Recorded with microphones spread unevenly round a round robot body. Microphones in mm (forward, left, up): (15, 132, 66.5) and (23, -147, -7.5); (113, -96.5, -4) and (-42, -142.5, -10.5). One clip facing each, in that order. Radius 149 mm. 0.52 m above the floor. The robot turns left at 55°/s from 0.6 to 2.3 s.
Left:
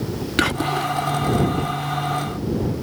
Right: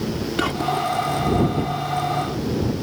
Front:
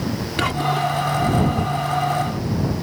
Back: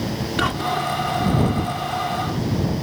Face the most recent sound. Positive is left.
turn(degrees=-5)